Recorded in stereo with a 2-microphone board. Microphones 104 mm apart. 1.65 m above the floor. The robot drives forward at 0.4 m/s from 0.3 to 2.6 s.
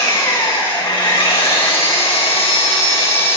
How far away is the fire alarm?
I don't hear a fire alarm.